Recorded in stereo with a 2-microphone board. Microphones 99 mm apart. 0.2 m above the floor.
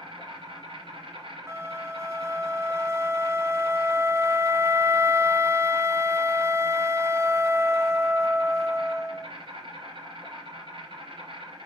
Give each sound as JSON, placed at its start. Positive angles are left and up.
{"t": 0.0, "sound": "an insect", "side_deg": -65, "distance_m": 3.5}
{"t": 1.5, "sound": "a flute", "side_deg": -30, "distance_m": 0.7}